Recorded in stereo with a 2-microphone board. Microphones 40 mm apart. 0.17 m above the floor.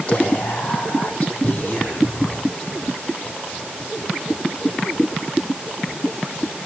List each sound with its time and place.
0.1 s whispering: 25° left (ahead or behind), 8 m